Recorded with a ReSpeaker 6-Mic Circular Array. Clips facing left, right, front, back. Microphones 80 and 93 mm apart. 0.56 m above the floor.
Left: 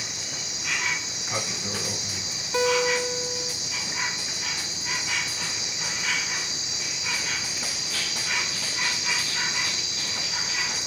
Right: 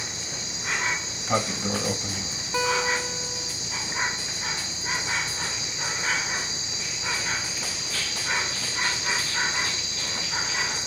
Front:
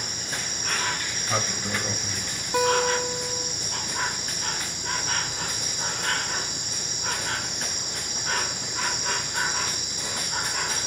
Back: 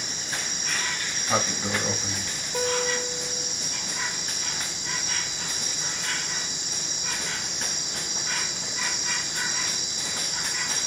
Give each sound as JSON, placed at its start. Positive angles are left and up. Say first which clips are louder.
{"t": 0.0, "sound": "an insect", "louder": "right 1 dB, even", "azimuth_deg": -35, "distance_m": 1.0}
{"t": 1.1, "sound": "a sliding door", "louder": "right 6 dB, back 2 dB", "azimuth_deg": -105, "distance_m": 1.8}
{"t": 2.5, "sound": "a guitar", "louder": "left 3 dB, front 5 dB", "azimuth_deg": -5, "distance_m": 1.8}